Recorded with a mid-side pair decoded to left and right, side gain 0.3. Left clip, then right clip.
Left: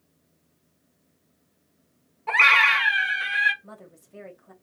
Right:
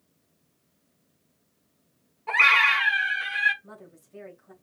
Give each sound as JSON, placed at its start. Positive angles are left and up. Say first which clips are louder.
{"t": 2.3, "sound": "a scream", "louder": "left 2 dB", "azimuth_deg": 35, "distance_m": 2.5}
{"t": 3.6, "sound": "a woman speaking", "louder": "left 1 dB", "azimuth_deg": 45, "distance_m": 1.9}